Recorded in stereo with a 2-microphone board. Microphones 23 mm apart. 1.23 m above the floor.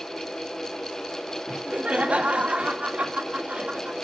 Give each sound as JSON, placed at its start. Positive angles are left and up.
{"t": 1.5, "sound": "laughter", "side_deg": -85, "distance_m": 2.5}